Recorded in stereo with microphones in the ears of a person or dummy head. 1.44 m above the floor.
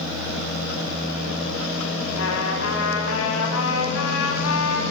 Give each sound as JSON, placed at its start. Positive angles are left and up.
{"t": 2.2, "sound": "a trumpet", "side_deg": 75, "distance_m": 8.0}